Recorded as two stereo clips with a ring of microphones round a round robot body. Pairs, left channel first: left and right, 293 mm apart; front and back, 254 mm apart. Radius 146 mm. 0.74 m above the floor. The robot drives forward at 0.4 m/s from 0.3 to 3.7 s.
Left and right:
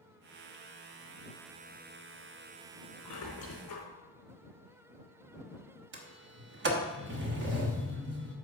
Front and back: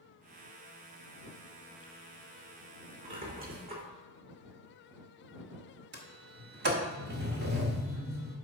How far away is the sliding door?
About 1.1 m.